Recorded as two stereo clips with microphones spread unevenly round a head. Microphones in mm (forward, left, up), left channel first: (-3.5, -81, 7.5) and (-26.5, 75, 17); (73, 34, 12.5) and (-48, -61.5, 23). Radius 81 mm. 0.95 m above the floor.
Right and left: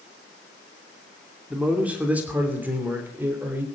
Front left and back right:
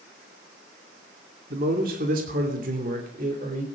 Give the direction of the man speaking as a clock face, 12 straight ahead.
6 o'clock.